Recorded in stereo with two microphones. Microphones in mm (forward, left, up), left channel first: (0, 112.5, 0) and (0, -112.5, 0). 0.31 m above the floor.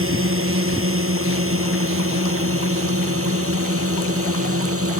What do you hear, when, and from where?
0.0 s a drone: 70° right (ahead or behind); by 5.0 s 80° right